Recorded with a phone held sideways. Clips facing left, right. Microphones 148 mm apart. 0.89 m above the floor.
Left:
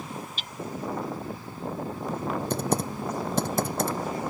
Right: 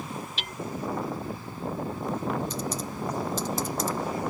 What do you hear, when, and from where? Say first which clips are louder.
0.4 s hammering: right 3 dB; 75° right (ahead or behind)
2.5 s typing on a keyboard: left 5 dB; 55° left (ahead or behind)